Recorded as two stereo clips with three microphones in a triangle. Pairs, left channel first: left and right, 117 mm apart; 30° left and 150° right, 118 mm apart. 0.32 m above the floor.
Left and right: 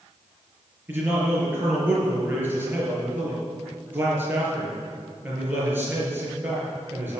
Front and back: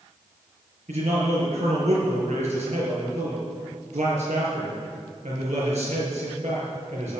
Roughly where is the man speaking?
Behind.